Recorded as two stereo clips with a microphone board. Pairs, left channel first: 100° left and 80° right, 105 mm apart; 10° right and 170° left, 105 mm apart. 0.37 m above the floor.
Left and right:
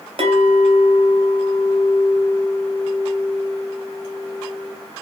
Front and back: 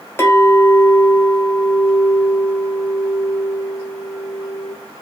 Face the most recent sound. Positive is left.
turn(degrees=-80)